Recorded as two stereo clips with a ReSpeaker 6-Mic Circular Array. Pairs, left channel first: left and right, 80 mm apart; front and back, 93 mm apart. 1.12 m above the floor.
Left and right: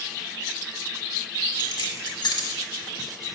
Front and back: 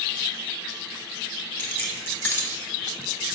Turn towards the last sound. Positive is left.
turn(degrees=70)